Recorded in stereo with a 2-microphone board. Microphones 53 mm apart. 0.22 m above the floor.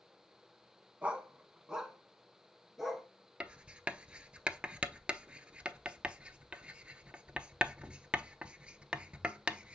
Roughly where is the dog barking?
Right.